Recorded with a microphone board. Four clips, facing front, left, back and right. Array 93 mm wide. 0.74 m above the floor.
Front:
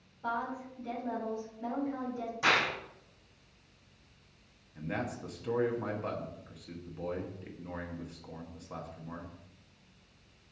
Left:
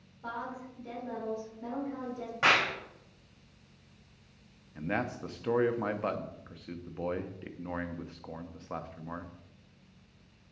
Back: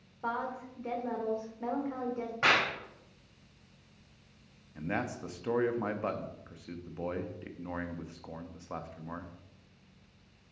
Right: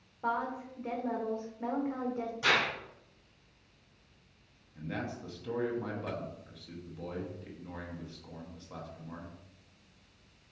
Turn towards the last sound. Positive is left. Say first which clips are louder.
# left 5 dB, back 2 dB
turn(degrees=120)